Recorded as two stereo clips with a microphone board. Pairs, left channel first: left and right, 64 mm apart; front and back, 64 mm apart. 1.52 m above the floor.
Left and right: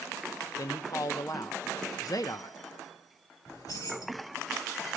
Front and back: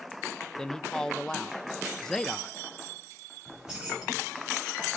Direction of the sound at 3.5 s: 105° left.